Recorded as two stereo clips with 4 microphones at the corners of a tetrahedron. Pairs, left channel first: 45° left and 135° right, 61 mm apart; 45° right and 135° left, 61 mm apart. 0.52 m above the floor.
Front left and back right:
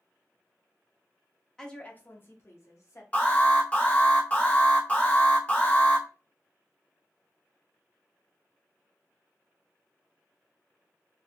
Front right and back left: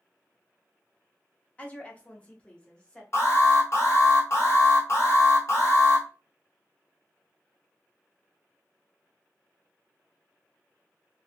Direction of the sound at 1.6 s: 25° right.